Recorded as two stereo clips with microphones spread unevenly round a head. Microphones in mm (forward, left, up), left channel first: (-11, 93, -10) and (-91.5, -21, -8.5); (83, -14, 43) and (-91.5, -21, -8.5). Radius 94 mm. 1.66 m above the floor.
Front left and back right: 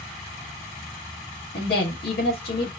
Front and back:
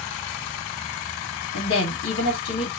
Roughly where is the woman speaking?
Ahead.